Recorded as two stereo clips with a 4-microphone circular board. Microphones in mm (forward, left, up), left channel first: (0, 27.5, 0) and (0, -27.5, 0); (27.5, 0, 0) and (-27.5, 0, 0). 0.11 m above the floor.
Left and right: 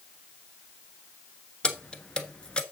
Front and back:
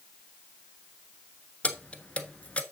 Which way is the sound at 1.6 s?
35° left.